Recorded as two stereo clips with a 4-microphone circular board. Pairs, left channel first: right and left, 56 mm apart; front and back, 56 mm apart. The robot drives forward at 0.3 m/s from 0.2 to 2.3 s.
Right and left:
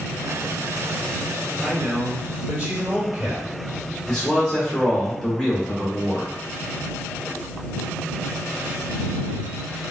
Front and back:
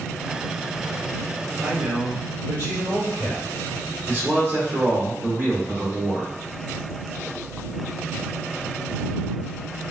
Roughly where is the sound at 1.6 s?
Behind left.